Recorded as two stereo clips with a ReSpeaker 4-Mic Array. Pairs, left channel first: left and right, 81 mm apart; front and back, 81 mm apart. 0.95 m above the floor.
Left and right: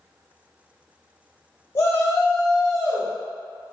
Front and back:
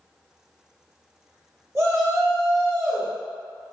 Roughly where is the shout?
Behind left.